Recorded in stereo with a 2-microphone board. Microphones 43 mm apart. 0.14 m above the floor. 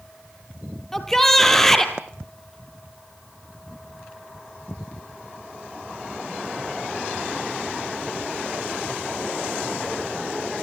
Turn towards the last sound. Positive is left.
turn(degrees=5)  # may be behind; listen again after turning